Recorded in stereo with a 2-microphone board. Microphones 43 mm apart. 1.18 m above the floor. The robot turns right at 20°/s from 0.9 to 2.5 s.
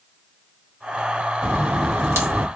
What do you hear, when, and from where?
1.4 s a crack: 80° right, 1.2 m; by 2.5 s 70° right (ahead or behind), 1.2 m